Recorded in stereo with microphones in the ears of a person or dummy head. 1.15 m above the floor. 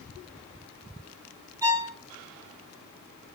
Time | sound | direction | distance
1.6 | a violin | 15° right (ahead or behind) | 0.6 m